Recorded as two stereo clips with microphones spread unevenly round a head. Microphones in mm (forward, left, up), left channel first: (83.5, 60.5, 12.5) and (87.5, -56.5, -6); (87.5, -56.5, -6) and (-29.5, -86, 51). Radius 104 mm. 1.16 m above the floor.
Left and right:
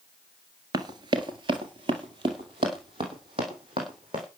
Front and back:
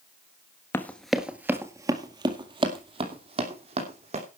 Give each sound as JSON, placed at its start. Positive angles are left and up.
{"t": 0.7, "sound": "running footsteps", "azimuth_deg": -95, "distance_m": 1.2}